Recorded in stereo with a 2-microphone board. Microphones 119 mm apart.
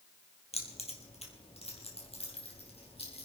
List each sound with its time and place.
0.5 s keys jangling: 65° left (ahead or behind), 2.5 m; by 3.2 s 55° left (ahead or behind), 4 m